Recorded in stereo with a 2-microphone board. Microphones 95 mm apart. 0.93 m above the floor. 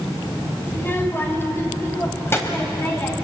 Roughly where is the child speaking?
Left.